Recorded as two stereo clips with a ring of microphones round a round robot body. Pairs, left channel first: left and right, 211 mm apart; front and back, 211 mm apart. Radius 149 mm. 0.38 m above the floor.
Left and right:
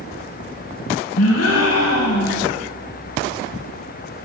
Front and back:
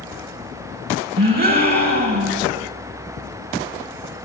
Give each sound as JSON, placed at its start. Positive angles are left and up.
{"t": 1.2, "sound": "a gasp", "azimuth_deg": 135, "distance_m": 2.0}